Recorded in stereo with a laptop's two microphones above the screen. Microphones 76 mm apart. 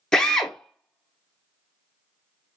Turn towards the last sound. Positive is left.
turn(degrees=10)  # may be behind; listen again after turning